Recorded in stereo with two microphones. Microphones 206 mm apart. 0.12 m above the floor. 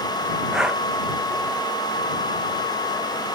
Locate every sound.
0.5 s breathing: 5° right (ahead or behind)